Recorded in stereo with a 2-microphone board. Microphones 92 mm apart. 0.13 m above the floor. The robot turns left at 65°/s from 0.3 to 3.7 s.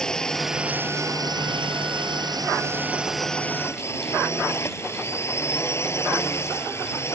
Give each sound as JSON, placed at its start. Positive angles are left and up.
{"t": 0.0, "sound": "a drone", "azimuth_deg": 10}